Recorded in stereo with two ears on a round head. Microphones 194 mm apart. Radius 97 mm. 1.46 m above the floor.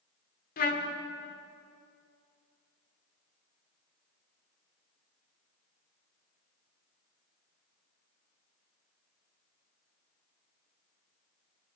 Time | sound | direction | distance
0.6 | a trumpet | 40° left (ahead or behind) | 1.8 m